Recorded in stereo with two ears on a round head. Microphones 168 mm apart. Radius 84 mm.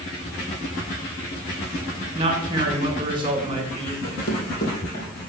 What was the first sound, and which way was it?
A man speaking, 25° right (ahead or behind).